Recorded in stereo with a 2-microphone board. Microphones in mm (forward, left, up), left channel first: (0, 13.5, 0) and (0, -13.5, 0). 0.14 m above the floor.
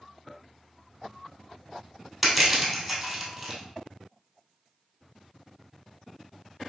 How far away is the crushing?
About 1.7 m.